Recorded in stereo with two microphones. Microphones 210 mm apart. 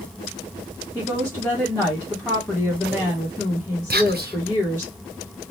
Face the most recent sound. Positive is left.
turn(degrees=-50)  # may be behind; listen again after turning